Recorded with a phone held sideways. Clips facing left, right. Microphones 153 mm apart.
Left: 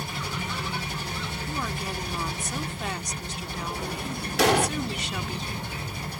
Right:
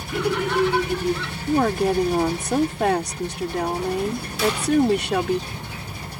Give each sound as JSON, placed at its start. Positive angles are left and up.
{"t": 0.1, "sound": "laughter", "side_deg": -65}
{"t": 1.5, "sound": "a woman speaking", "side_deg": -65}
{"t": 4.4, "sound": "an explosion", "side_deg": 75}